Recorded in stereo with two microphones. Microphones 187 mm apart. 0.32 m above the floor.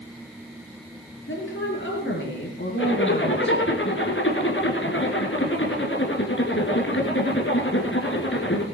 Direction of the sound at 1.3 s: 75° left (ahead or behind).